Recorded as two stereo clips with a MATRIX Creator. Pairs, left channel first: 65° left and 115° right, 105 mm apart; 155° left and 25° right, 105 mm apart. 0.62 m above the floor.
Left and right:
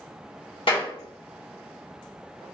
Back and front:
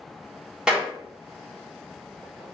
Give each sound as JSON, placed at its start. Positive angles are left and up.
{"t": 0.7, "sound": "a clap", "azimuth_deg": 60, "distance_m": 1.2}